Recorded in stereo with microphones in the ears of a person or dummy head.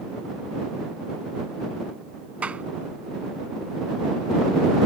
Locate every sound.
2.4 s a clap: 5° right (ahead or behind)